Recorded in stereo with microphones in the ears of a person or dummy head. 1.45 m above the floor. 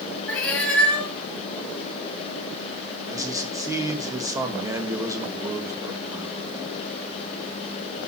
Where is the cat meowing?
5° left (ahead or behind), 3 m.